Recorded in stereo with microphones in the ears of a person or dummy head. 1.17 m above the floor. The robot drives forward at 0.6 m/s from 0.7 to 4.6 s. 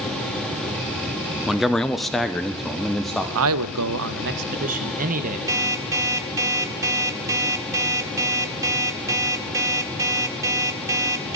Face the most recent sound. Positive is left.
turn(degrees=-20)  # may be behind; listen again after turning